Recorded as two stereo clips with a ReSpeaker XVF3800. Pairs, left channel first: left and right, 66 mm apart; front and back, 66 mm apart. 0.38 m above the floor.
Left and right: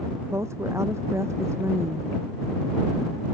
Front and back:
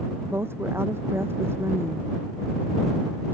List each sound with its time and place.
0.3 s a woman speaking: 130° right